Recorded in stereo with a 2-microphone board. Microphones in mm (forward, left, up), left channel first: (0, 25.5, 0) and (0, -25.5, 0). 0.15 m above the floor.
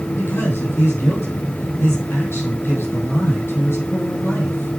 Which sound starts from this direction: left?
A man speaking, at 0.2 s.